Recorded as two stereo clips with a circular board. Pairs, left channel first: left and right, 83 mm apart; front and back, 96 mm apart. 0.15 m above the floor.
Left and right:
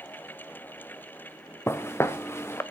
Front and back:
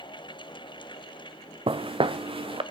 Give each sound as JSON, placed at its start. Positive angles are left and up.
{"t": 1.7, "sound": "footsteps", "azimuth_deg": 150, "distance_m": 0.7}